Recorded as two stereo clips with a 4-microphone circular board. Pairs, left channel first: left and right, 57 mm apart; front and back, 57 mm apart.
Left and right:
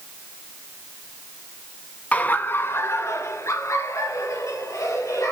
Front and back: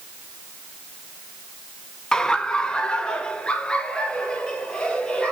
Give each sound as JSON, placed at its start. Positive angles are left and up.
{"t": 2.1, "sound": "laughter", "azimuth_deg": 60, "distance_m": 1.2}